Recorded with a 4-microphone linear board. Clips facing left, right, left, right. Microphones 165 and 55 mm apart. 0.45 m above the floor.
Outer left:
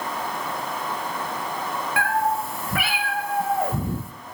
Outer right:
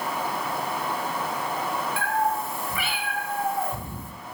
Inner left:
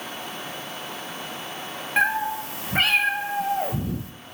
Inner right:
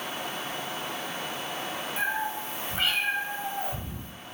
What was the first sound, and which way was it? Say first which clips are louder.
A cat meowing: outer left 4 dB, inner left 8 dB; 70° left (ahead or behind).